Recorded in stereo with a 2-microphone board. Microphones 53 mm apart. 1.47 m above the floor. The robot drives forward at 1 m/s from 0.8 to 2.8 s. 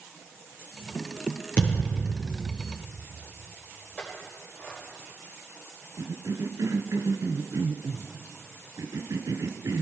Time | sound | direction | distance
1.6 | a thud | 30° left (ahead or behind) | 6.5 m
4.0 | a clink | 30° left (ahead or behind) | 5 m
6.0 | a cough | 75° right (ahead or behind) | 1.1 m